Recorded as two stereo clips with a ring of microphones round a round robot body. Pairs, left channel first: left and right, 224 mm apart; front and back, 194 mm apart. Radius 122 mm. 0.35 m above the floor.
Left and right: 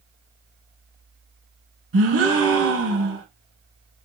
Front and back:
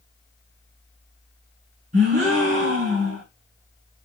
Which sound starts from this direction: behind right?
A gasp, at 1.9 s.